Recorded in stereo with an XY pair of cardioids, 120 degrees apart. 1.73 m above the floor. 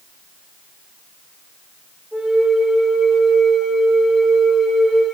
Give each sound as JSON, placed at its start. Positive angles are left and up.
{"t": 2.1, "sound": "a flute", "azimuth_deg": -10, "distance_m": 2.0}